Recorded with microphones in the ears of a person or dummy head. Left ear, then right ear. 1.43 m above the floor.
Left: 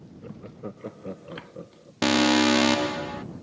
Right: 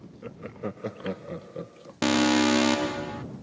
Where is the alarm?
5° left (ahead or behind).